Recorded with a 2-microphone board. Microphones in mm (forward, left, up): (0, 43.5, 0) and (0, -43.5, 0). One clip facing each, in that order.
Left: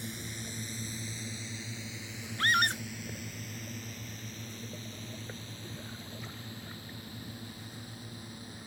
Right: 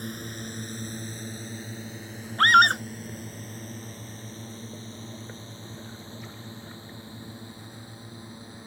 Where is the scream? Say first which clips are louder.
Right 11 dB; 65° right (ahead or behind).